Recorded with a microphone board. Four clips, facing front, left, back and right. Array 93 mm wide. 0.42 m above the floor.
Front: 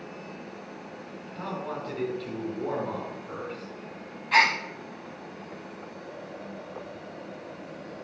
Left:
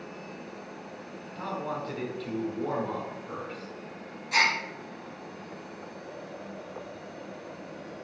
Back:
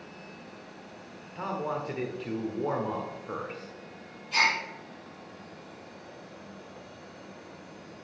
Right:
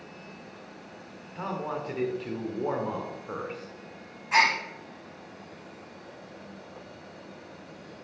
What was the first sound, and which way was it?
A man speaking, 135° right.